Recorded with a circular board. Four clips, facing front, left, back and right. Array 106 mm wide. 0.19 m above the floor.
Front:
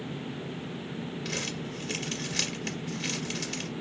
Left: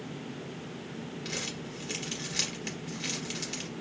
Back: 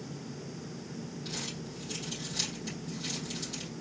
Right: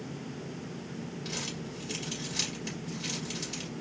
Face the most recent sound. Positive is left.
turn(degrees=30)